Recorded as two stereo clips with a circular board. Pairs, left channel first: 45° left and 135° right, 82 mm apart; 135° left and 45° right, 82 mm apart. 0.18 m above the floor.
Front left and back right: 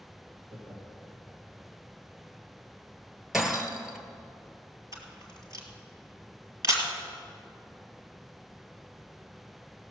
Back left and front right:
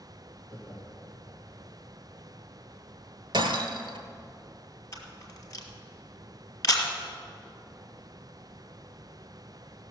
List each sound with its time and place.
0.5 s laughter: 135° right, 5 m
3.3 s breaking glass: 50° right, 1.1 m
4.9 s a camera shutter: 175° right, 2.0 m